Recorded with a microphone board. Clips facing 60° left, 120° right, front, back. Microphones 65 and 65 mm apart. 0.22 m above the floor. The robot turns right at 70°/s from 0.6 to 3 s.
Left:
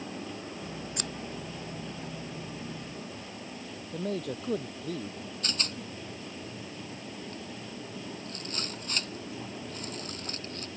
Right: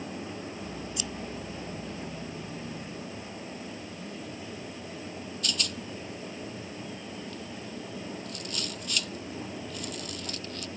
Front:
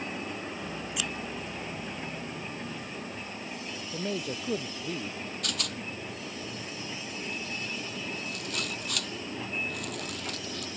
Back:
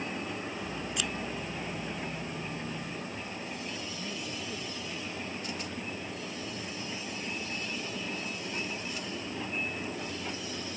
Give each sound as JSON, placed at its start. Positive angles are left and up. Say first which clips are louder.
{"t": 1.0, "sound": "scissors", "louder": "even, even", "azimuth_deg": 85}
{"t": 3.9, "sound": "a man speaking", "louder": "left 6 dB, front 5 dB", "azimuth_deg": 40}
{"t": 5.4, "sound": "a rattle", "louder": "right 1 dB, front 1 dB", "azimuth_deg": 10}